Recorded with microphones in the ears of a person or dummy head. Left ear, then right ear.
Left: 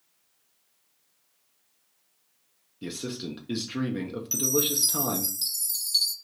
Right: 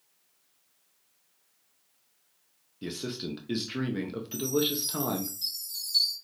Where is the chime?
25° left (ahead or behind), 0.9 m.